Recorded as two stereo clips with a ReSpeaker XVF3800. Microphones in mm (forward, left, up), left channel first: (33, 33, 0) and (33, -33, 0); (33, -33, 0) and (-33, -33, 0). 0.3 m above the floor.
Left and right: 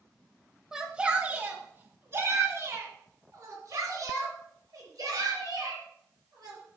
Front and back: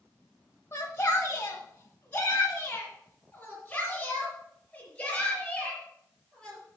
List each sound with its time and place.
0.7 s a shout: 10° right, 1.1 m; by 6.6 s 80° right, 5.5 m